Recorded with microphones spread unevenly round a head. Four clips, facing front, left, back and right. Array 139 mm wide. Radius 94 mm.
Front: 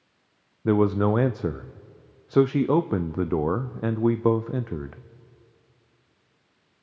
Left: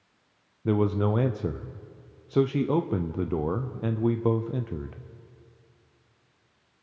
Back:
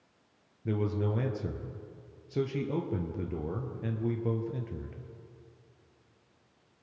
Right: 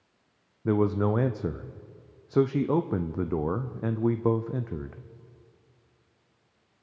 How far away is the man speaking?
About 0.6 m.